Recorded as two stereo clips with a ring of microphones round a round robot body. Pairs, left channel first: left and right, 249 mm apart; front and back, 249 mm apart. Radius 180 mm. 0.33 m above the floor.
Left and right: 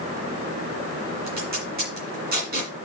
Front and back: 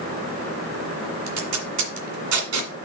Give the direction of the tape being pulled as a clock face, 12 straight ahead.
5 o'clock.